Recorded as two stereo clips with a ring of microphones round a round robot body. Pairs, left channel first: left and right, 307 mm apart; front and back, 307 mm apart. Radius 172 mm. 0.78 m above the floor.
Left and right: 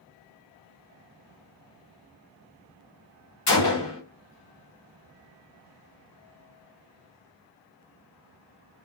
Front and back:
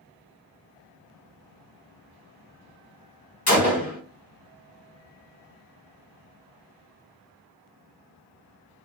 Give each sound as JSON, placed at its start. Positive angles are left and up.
{"t": 3.5, "sound": "a gunshot", "azimuth_deg": 40, "distance_m": 1.8}